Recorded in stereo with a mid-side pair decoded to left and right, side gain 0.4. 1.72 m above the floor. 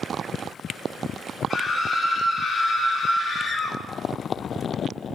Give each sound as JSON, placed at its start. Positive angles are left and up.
{"t": 1.5, "sound": "a scream", "azimuth_deg": 50, "distance_m": 1.2}